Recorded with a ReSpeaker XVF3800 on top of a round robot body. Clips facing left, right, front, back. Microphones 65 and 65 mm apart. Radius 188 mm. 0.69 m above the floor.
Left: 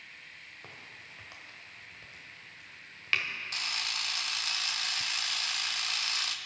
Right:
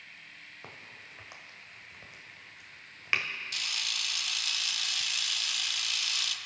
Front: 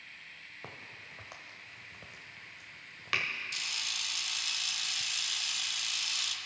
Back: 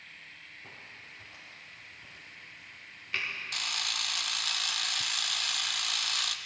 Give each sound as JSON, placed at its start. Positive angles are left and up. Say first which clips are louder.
{"t": 0.6, "sound": "a crack", "louder": "right 2 dB, front 4 dB", "azimuth_deg": -15, "distance_m": 1.1}
{"t": 3.5, "sound": "a camera shutter", "louder": "left 1 dB, back 4 dB", "azimuth_deg": 145, "distance_m": 0.5}